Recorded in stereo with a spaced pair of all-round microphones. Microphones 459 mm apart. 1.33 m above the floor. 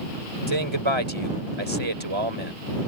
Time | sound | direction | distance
0.5 | a man speaking | 85° right | ?